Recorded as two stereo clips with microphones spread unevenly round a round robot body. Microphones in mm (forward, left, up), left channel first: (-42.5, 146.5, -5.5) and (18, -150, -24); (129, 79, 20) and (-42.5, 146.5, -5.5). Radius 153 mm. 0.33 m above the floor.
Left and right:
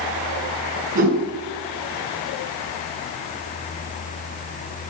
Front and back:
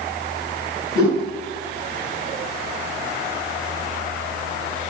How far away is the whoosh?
About 2.5 m.